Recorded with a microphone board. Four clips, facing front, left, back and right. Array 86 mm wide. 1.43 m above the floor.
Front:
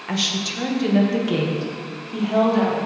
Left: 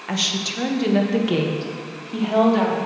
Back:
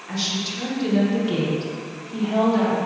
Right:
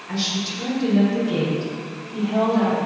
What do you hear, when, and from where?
0.1 s a woman speaking: 55° left, 1.0 m; by 2.8 s 80° left, 2.5 m